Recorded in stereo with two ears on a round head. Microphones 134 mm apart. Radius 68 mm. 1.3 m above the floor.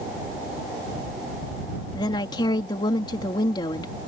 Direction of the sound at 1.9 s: 30° left (ahead or behind).